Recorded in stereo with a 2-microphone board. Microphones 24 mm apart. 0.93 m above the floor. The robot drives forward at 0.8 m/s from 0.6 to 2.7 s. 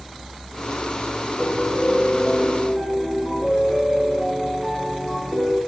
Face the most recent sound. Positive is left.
turn(degrees=35)  # may be behind; listen again after turning